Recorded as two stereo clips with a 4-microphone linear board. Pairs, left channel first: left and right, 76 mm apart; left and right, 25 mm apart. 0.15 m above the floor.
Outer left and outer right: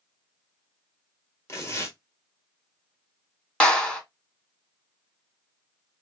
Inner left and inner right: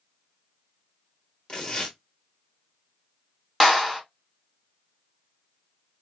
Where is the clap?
10° left (ahead or behind), 0.9 m.